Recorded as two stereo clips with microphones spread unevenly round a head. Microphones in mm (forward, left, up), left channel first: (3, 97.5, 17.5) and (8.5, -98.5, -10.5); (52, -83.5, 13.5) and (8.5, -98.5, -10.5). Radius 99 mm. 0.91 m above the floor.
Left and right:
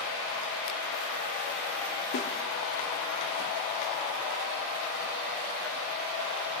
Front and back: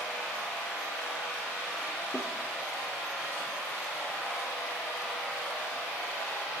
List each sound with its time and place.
2.1 s a snare drum: 95° left, 3 m